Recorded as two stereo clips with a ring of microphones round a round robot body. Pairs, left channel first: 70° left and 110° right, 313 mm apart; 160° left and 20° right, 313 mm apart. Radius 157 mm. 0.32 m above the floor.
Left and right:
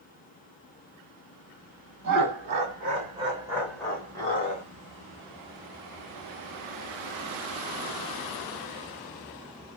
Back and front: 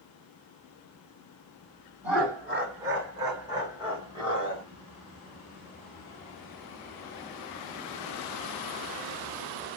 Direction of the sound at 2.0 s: 105° right.